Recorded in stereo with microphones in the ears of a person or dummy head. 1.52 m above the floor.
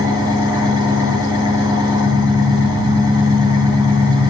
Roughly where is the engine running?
Right.